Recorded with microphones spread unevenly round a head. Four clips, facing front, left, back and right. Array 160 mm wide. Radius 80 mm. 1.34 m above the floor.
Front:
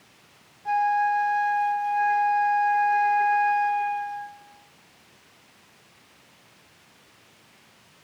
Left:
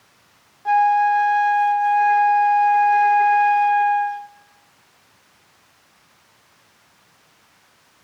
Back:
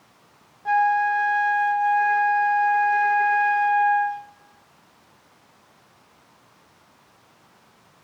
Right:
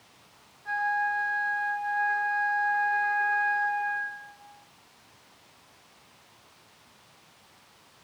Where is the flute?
105° left, 1.3 m.